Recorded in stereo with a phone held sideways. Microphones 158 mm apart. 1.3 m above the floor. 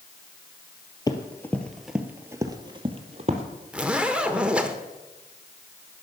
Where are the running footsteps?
25° left (ahead or behind), 1.4 m; by 3.4 s 45° right (ahead or behind), 1.7 m.